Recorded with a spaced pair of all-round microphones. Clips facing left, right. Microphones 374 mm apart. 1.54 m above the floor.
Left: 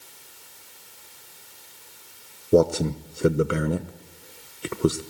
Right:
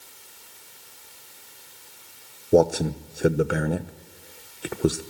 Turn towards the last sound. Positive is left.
turn(degrees=5)  # may be behind; listen again after turning